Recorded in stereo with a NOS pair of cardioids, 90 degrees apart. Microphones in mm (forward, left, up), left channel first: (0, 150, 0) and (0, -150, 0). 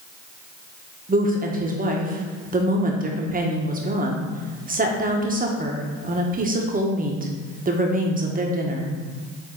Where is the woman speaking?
30° right, 1.4 m.